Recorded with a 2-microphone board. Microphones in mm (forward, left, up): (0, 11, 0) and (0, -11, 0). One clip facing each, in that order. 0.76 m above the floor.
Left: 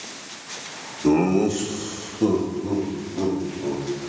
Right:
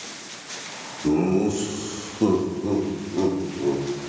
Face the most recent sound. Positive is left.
turn(degrees=-55)  # may be behind; listen again after turning